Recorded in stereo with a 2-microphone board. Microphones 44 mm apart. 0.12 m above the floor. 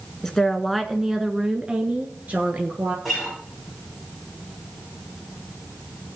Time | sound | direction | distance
0.2 | a woman speaking | 15° left (ahead or behind) | 1.1 m
3.0 | a guitar | 10° right (ahead or behind) | 6.5 m